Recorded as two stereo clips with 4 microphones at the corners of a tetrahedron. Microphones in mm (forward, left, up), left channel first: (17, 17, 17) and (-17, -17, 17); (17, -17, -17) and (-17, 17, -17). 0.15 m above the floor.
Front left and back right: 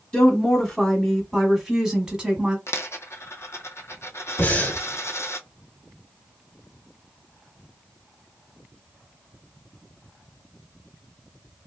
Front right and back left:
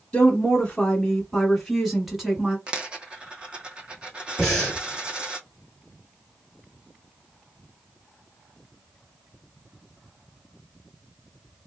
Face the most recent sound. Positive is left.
turn(degrees=40)